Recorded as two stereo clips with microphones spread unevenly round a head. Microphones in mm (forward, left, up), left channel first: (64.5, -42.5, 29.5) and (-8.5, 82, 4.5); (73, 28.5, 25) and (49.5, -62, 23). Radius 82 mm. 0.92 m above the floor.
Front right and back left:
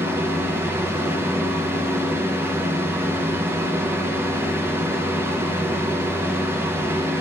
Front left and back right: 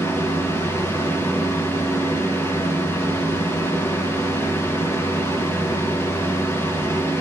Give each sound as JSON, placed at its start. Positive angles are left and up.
{"t": 0.0, "sound": "a fan", "azimuth_deg": 105, "distance_m": 0.9}